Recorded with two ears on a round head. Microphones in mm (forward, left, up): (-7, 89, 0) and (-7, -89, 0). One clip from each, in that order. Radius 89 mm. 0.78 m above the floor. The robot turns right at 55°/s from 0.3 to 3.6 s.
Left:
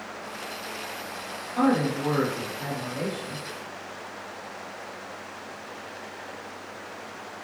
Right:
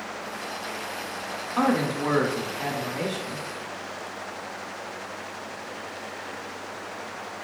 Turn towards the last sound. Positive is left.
turn(degrees=-30)